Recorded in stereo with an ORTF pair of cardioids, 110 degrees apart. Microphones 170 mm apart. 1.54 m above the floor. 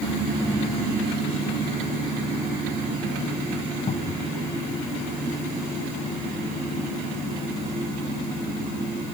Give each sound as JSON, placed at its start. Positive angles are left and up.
{"t": 3.9, "sound": "a cupboard door", "azimuth_deg": 35}